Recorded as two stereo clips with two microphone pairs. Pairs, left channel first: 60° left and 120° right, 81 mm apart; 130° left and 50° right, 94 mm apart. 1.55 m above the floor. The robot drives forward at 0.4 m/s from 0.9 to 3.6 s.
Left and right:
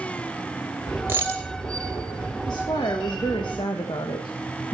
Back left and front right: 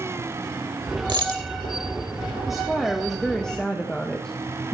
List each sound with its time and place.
1.1 s a dropped coin: 65° right, 1.4 m; by 1.4 s 70° right, 1.4 m
2.5 s a woman speaking: 35° left, 1.7 m; by 4.7 s 50° left, 1.3 m